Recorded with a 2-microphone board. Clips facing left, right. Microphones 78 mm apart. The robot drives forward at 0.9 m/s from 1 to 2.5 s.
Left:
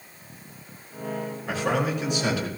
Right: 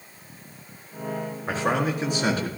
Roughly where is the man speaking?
Right.